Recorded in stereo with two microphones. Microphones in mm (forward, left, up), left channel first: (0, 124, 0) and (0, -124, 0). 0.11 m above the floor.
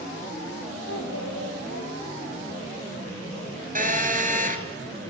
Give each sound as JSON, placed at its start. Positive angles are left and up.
{"t": 0.9, "sound": "a child speaking", "side_deg": 65, "distance_m": 8.0}
{"t": 3.8, "sound": "a phone buzzing", "side_deg": -35, "distance_m": 2.0}